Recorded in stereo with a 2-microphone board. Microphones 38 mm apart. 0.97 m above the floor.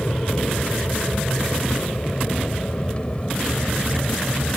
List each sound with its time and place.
0.0 s an aircraft: 35° left (ahead or behind); by 4.6 s 25° left (ahead or behind)